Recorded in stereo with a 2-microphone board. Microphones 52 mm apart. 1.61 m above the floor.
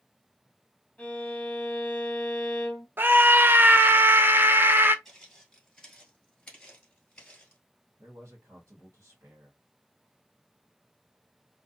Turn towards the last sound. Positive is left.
turn(degrees=-80)